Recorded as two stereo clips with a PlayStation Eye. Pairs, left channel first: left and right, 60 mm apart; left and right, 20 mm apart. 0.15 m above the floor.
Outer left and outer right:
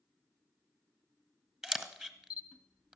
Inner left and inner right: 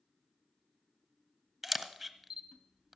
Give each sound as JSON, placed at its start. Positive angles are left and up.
{"t": 1.6, "sound": "a camera shutter", "side_deg": -10, "distance_m": 1.1}